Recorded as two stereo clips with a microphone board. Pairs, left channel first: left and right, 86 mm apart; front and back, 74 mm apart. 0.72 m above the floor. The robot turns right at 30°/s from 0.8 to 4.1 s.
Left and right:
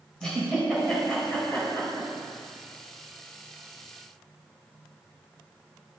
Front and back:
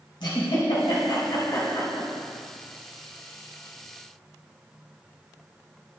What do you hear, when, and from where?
0.2 s a giggle: 10° left, 3 m; by 2.1 s 50° left, 3 m